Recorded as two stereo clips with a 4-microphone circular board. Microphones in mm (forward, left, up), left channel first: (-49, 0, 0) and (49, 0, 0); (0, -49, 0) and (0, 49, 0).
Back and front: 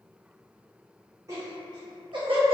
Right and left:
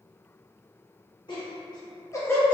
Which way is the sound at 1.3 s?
55° right.